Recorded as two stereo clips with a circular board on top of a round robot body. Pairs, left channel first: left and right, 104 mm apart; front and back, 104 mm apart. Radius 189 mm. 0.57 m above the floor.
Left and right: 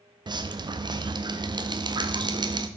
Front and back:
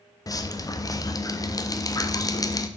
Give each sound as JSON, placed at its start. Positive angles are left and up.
{"t": 0.3, "sound": "dripping", "azimuth_deg": -50, "distance_m": 0.8}